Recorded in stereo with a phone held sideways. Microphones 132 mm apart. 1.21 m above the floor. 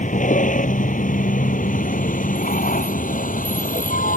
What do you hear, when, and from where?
0.0 s a vehicle: 75° left (ahead or behind); by 4.2 s 85° left